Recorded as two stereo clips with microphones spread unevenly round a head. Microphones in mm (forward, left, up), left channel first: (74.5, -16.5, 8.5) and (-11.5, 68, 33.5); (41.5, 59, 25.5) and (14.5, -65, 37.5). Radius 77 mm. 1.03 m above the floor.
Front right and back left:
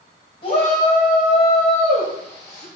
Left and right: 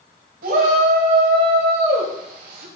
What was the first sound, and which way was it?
A shout, 100° right.